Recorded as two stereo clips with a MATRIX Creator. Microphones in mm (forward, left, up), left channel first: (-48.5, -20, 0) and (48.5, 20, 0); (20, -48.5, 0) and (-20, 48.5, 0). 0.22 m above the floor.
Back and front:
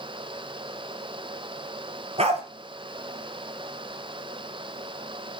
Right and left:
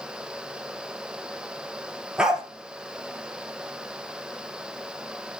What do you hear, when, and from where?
2.2 s a dog barking: 30° left, 2 m